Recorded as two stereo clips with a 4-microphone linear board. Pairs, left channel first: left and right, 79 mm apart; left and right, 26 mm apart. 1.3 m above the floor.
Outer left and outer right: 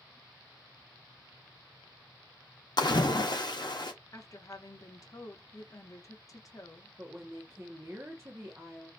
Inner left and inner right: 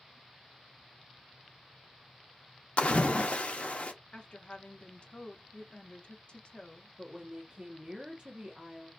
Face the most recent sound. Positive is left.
turn(degrees=-35)  # may be behind; listen again after turning